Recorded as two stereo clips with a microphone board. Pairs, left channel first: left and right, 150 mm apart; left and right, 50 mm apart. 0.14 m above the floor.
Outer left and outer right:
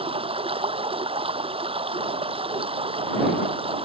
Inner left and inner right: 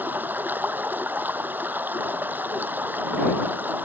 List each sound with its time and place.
0.0 s running water: 40° right (ahead or behind)